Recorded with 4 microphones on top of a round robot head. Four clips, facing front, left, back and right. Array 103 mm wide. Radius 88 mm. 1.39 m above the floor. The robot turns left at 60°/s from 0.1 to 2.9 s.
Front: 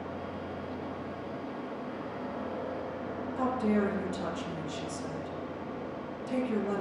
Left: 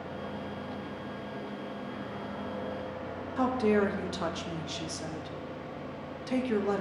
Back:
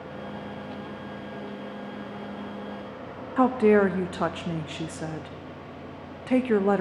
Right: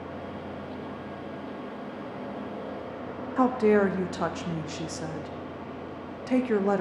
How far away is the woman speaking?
About 0.7 m.